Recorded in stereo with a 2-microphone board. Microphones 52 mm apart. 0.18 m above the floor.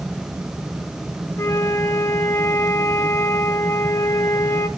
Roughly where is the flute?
Left.